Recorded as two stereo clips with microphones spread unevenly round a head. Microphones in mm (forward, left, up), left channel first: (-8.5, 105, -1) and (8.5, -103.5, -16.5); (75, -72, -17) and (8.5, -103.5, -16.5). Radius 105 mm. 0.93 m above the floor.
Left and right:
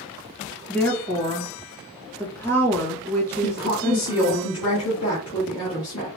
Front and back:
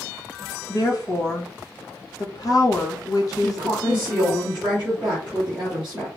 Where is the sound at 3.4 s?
120° left, 1.7 m.